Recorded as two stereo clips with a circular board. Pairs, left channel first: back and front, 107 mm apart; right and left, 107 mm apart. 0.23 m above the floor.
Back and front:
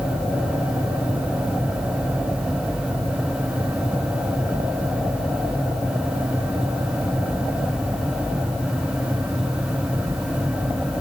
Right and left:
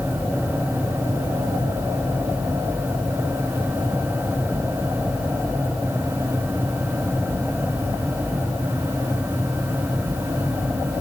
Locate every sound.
Only background noise.